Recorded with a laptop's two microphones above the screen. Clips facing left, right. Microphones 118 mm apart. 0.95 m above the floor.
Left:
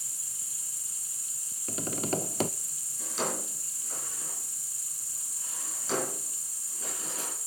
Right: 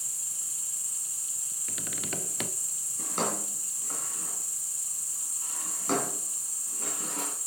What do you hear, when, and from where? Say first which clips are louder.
0.0 s an insect: right 1 dB; 40° right (ahead or behind), 5.5 m
1.7 s tapping: left 8 dB; 35° left (ahead or behind), 0.6 m
3.0 s a drawer: right 2 dB; 60° right (ahead or behind), 4 m